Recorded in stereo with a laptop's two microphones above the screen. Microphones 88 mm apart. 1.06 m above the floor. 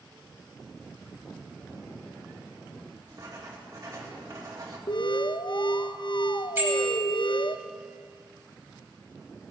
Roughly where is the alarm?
Left.